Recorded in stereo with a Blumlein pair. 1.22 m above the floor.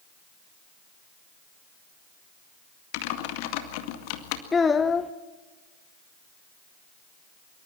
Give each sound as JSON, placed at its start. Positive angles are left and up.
{"t": 2.9, "sound": "typing on a keyboard", "azimuth_deg": 45, "distance_m": 2.0}
{"t": 4.5, "sound": "a child speaking", "azimuth_deg": 15, "distance_m": 0.6}